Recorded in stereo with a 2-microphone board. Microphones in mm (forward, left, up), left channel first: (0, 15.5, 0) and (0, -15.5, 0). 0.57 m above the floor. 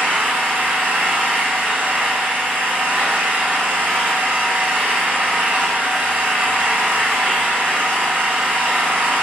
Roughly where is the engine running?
Right.